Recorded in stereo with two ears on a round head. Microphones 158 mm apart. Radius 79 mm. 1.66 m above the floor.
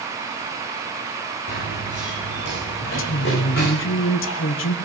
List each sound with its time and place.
1.5 s running footsteps: 65° left (ahead or behind), 8 m; by 3.7 s 55° left (ahead or behind), 9.5 m
2.8 s a woman speaking: 80° left, 1.0 m